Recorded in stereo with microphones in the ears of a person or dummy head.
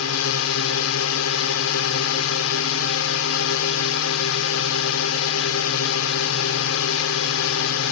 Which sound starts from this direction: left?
A drone, at 0.0 s.